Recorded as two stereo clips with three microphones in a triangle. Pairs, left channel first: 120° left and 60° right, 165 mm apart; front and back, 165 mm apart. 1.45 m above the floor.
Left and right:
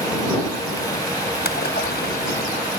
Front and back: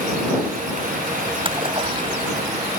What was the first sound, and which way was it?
A splash, 120° left.